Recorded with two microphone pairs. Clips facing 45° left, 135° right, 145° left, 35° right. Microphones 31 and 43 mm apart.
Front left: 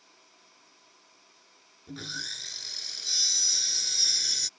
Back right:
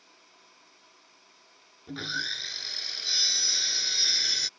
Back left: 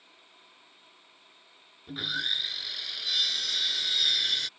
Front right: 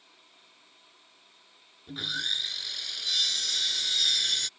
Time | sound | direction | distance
1.9 | sawing | 145° right | ?